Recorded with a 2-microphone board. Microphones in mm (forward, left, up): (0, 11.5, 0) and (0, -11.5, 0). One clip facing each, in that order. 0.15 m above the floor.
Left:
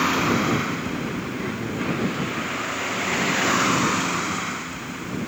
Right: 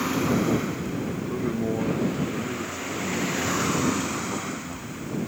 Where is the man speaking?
60° right (ahead or behind).